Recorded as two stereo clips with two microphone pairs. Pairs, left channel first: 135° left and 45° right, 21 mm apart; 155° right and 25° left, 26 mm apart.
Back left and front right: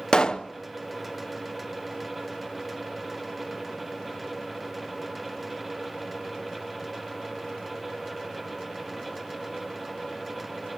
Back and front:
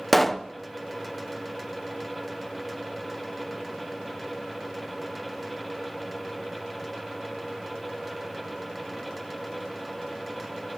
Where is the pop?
120° left, 0.6 m.